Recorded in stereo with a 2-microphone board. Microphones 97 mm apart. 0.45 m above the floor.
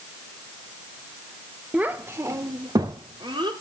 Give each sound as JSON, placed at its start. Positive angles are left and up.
{"t": 1.7, "sound": "a child speaking", "side_deg": -15, "distance_m": 0.8}